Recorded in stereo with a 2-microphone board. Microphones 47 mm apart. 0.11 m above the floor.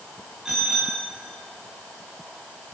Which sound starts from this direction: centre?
A bicycle bell, at 0.5 s.